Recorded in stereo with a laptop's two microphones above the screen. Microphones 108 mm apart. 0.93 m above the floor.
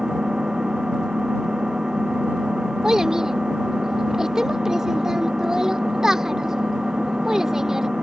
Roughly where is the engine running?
Centre.